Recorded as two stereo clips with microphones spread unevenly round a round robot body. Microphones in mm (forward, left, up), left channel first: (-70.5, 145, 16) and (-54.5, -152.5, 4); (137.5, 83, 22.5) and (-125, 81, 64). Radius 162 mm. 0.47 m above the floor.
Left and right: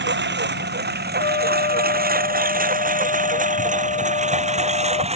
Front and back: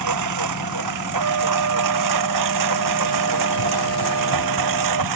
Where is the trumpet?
160° left.